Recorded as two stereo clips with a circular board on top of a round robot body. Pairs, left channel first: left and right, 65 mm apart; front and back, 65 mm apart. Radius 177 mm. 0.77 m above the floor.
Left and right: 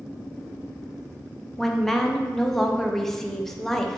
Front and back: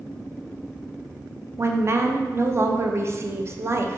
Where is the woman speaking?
175° left, 0.5 m.